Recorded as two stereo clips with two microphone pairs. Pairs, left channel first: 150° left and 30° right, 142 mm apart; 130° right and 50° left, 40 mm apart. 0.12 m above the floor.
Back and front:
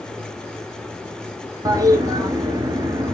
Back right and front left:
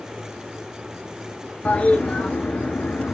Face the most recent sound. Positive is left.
turn(degrees=-90)